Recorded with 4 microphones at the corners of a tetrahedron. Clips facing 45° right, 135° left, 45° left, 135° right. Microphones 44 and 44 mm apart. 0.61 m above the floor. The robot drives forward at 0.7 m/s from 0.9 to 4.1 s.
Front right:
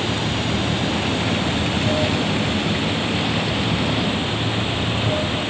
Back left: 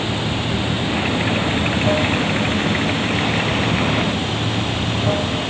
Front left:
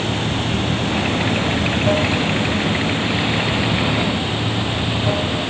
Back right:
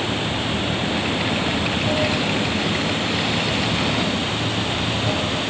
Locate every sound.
0.0 s running water: 70° left, 3 m; by 5.5 s 115° left, 3 m